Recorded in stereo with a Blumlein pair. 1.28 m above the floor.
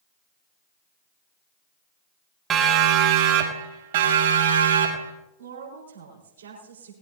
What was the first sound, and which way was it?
A siren, 25° right.